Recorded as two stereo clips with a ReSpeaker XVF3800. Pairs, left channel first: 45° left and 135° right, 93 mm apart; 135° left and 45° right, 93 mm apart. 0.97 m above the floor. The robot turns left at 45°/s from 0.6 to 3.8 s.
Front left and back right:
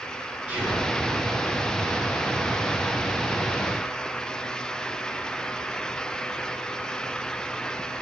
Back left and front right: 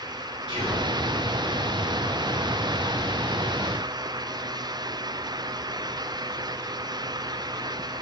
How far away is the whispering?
About 3 m.